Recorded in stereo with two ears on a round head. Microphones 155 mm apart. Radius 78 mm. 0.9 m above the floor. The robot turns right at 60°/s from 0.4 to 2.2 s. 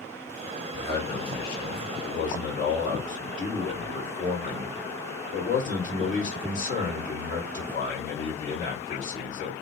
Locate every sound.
0.7 s a man speaking: 40° left, 1.8 m; by 9.6 s 130° left, 1.8 m